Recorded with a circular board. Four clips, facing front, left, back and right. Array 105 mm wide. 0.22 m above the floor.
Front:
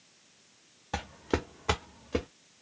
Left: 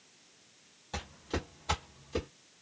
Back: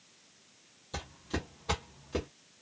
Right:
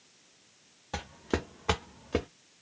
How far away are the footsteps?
About 1.2 m.